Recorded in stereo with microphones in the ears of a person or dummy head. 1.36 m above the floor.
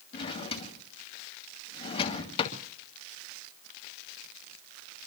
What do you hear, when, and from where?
0.1 s a drawer: 35° left (ahead or behind), 2 m